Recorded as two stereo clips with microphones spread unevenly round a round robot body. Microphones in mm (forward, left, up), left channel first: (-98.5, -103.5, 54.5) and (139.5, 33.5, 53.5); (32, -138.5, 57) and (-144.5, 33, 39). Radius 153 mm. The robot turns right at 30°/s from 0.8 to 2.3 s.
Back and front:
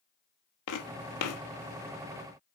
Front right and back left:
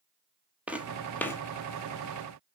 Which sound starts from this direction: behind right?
Footsteps, at 0.7 s.